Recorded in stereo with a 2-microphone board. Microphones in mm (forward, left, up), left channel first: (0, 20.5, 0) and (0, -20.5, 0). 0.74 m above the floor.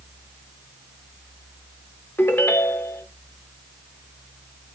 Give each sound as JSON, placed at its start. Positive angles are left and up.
{"t": 2.2, "sound": "a ringtone", "side_deg": 70, "distance_m": 0.7}